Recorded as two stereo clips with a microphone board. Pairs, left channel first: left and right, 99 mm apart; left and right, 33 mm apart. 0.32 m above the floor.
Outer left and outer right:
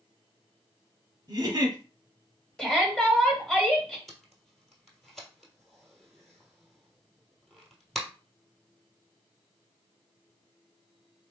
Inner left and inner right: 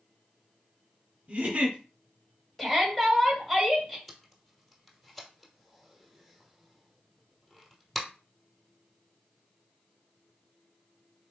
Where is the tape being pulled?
Centre (ahead or behind), 1.4 m.